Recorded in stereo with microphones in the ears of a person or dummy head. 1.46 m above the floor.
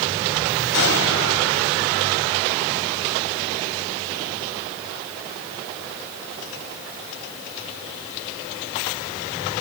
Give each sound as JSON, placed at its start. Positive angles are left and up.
{"t": 0.7, "sound": "an explosion", "side_deg": 65, "distance_m": 3.0}